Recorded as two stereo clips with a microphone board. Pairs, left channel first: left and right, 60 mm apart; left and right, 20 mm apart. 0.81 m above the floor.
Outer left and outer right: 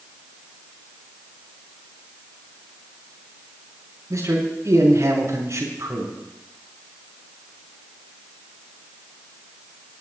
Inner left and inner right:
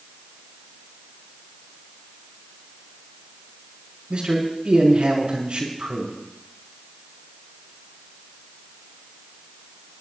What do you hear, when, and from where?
4.1 s a man speaking: 60° right (ahead or behind), 5 m